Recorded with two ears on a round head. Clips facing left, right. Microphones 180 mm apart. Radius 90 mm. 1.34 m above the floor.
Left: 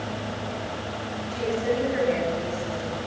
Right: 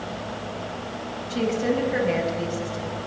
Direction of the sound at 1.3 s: 75° right (ahead or behind).